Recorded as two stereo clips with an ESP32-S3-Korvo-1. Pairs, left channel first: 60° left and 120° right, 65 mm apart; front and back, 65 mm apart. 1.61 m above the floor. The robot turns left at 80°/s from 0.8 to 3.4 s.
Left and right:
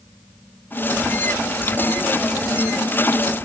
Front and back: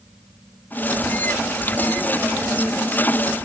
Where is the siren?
No siren in this recording.